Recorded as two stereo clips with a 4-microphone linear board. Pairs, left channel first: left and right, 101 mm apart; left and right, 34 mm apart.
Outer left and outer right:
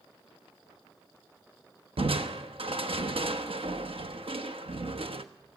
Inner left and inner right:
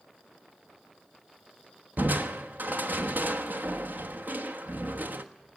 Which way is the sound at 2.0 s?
65° right (ahead or behind).